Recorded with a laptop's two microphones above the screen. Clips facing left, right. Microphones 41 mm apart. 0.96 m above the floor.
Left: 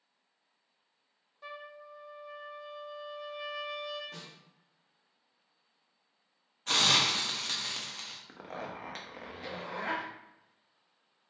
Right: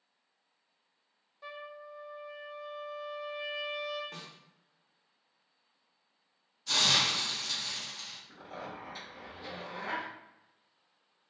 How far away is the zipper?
About 0.6 m.